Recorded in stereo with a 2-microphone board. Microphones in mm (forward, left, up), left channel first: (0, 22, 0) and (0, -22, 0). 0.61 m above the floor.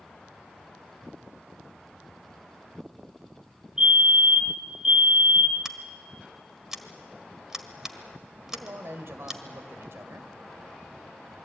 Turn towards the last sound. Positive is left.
turn(degrees=-70)  # may be behind; listen again after turning